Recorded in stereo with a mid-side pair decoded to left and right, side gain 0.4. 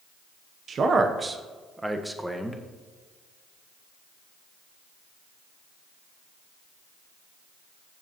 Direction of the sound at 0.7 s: 55° right.